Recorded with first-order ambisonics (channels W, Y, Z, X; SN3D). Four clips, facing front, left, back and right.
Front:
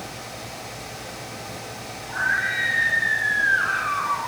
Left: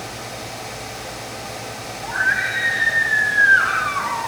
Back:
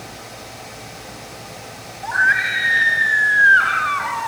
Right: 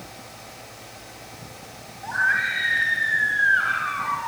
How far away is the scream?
About 4 m.